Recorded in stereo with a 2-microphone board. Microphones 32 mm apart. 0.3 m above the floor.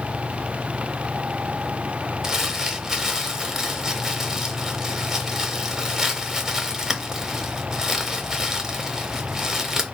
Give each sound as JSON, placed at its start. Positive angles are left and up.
{"t": 2.2, "sound": "crumpling", "side_deg": -15, "distance_m": 0.8}